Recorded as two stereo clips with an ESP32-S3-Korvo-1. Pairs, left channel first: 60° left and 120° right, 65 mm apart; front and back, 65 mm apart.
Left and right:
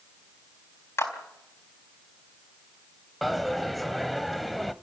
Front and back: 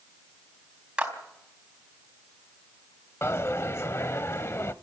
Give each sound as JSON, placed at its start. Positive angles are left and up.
{"t": 1.0, "sound": "a clap", "azimuth_deg": 105, "distance_m": 4.5}
{"t": 3.2, "sound": "a dropped coin", "azimuth_deg": -30, "distance_m": 0.8}